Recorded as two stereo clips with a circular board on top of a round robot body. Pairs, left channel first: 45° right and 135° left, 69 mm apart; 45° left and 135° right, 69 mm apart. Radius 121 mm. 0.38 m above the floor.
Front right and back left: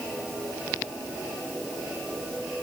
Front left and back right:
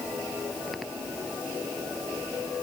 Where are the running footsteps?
I don't hear running footsteps.